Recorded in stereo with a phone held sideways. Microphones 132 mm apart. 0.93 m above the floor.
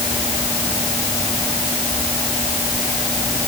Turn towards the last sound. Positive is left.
No sound to turn to.